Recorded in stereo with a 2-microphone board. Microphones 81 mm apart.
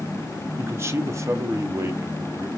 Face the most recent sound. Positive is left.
turn(degrees=-25)  # may be behind; listen again after turning